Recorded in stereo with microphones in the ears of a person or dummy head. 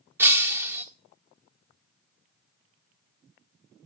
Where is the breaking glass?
15° right (ahead or behind), 1.7 m.